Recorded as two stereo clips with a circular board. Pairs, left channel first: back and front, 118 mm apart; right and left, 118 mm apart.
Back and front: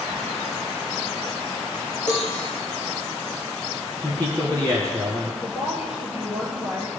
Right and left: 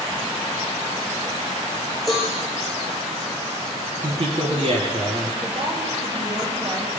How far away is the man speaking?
About 2 m.